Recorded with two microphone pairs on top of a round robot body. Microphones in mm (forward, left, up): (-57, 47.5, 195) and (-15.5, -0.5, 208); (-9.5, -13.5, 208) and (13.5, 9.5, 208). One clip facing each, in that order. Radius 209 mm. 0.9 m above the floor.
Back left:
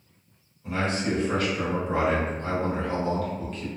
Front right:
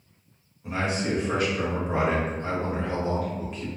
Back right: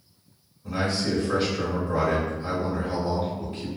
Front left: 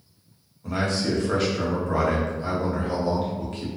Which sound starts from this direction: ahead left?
A man speaking, at 0.6 s.